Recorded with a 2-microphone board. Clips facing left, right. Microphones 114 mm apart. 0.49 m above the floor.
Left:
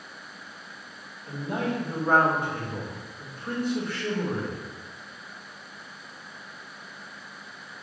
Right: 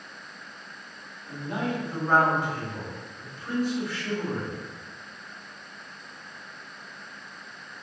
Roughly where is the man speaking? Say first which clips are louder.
Left 1 dB; left.